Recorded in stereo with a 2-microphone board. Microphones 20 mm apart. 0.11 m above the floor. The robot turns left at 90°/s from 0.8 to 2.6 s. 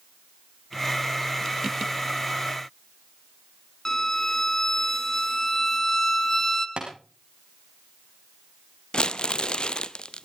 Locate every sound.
3.9 s a violin: 20° left (ahead or behind), 1.5 m
6.8 s tapping: 80° right, 4.5 m
8.9 s crumpling: 60° left (ahead or behind), 0.5 m